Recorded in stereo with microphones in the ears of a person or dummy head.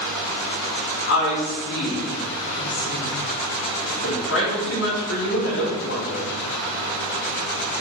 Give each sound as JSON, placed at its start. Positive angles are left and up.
{"t": 1.1, "sound": "a woman speaking", "side_deg": 80, "distance_m": 3.5}